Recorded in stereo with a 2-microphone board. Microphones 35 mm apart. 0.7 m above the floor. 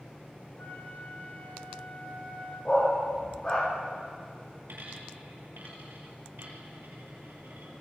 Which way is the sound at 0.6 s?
90° left.